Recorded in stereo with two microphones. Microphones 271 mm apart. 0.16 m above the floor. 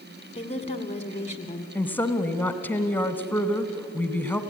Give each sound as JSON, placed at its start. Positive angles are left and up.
{"t": 0.3, "sound": "a woman speaking", "side_deg": 25, "distance_m": 1.2}
{"t": 1.8, "sound": "a woman speaking", "side_deg": 5, "distance_m": 1.0}